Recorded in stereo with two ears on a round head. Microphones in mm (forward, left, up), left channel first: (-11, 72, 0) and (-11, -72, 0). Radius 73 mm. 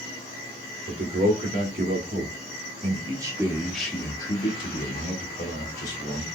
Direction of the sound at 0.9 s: 60° right (ahead or behind).